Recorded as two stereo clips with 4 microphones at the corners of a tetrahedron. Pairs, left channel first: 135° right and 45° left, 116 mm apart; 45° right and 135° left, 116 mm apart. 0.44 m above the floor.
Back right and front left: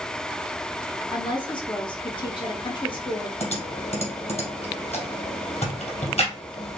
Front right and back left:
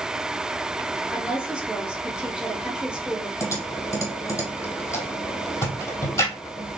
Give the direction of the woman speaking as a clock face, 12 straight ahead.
5 o'clock.